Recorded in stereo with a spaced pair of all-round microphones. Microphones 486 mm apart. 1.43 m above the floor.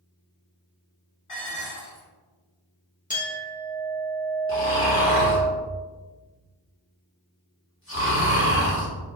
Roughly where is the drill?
No drill in this recording.